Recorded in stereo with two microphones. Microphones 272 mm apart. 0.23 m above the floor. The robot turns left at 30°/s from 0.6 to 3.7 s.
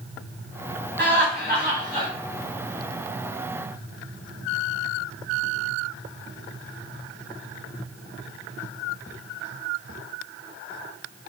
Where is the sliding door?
I don't hear a sliding door.